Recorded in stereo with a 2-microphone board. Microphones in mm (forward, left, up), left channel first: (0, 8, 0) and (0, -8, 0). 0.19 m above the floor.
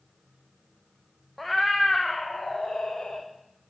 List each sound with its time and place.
1.4 s a cat meowing: 15° left (ahead or behind), 0.6 m; by 3.3 s 85° left, 1.1 m